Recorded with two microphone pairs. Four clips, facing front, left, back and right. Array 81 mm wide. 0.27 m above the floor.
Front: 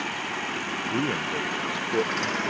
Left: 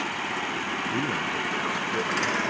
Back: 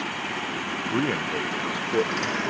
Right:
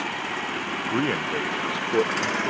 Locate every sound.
0.9 s a man speaking: 115° right